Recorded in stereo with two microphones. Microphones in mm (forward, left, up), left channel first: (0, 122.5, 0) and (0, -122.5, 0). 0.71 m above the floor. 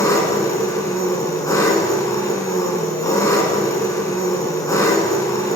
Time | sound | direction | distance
0.0 | an engine running | 15° left (ahead or behind) | 2.5 m